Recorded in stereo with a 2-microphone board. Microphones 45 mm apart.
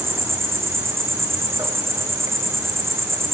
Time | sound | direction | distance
0.0 | an insect | 70° right (ahead or behind) | 3 m